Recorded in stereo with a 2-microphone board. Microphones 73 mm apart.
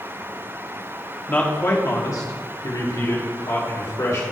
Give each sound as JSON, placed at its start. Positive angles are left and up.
{"t": 1.3, "sound": "a man speaking", "side_deg": 25, "distance_m": 1.4}